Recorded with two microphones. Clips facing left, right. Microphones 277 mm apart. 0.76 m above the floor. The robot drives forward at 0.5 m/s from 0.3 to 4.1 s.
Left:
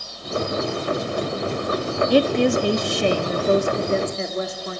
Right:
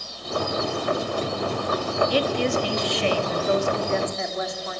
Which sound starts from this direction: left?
A woman speaking, at 2.1 s.